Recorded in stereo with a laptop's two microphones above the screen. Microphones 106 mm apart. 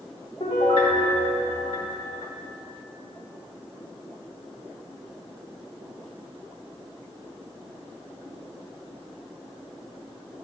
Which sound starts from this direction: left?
A piano, at 0.4 s.